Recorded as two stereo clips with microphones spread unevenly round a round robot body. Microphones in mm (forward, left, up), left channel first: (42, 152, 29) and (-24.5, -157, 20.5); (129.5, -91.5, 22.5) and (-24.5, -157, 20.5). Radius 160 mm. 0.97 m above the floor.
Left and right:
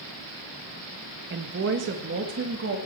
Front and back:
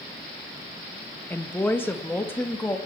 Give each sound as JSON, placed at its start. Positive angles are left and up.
{"t": 1.3, "sound": "a woman speaking", "azimuth_deg": -55, "distance_m": 1.4}